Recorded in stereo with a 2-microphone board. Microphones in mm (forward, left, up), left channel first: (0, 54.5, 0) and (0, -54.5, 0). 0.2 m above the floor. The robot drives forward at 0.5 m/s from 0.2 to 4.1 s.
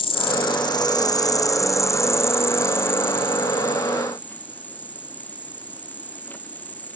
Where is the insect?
55° left (ahead or behind); by 7.0 s 15° left (ahead or behind).